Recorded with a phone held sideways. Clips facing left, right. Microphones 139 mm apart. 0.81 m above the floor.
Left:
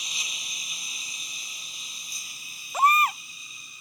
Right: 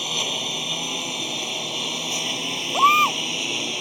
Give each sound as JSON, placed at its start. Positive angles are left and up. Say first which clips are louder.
{"t": 0.0, "sound": "a lawn mower", "louder": "right 16 dB", "side_deg": -65}
{"t": 2.7, "sound": "a baby crying", "louder": "right 3 dB", "side_deg": -30}